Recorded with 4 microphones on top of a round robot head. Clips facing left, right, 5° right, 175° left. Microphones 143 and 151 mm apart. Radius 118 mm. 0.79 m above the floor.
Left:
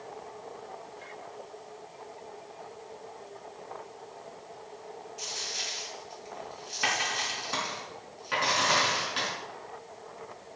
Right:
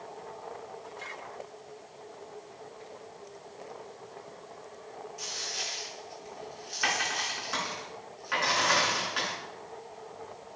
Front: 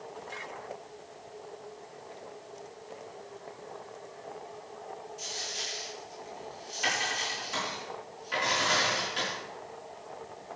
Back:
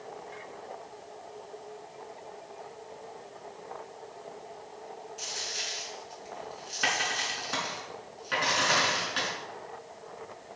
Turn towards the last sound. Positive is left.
turn(degrees=150)